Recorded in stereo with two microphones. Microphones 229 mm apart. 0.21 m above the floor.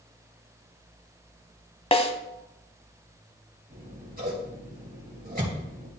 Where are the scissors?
40° right (ahead or behind), 4 m.